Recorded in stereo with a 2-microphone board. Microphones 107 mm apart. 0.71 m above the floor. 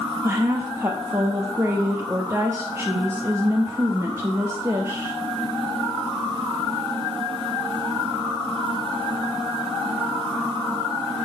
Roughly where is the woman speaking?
Right.